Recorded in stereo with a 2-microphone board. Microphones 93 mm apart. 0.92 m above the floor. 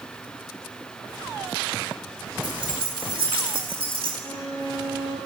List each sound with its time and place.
2.4 s keys jangling: 65° right (ahead or behind), 2.5 m; by 4.1 s 85° right, 2.5 m
4.2 s a violin: 45° left (ahead or behind), 2.5 m